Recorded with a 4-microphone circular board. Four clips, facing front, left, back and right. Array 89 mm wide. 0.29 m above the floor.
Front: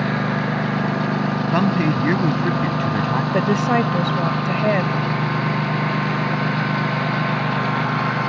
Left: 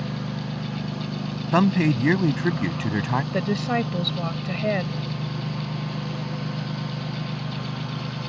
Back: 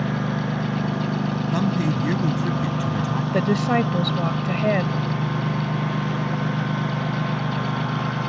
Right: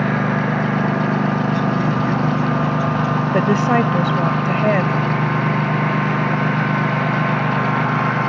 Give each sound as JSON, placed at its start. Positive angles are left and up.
{"t": 0.0, "sound": "a lawn mower", "azimuth_deg": -70}
{"t": 1.5, "sound": "a man speaking", "azimuth_deg": 55}
{"t": 3.3, "sound": "a woman speaking", "azimuth_deg": -75}